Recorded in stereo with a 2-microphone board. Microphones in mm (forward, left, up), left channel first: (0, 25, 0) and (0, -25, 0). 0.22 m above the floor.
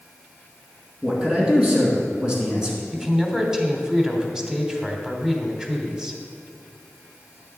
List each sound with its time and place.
1.0 s a man speaking: 20° right (ahead or behind), 2 m
2.9 s a man speaking: 15° right (ahead or behind), 1.1 m